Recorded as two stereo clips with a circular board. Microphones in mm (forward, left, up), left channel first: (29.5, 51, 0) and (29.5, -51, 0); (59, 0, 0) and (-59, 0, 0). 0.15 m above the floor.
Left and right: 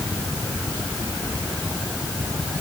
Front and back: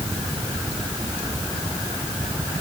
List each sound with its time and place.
Only background noise.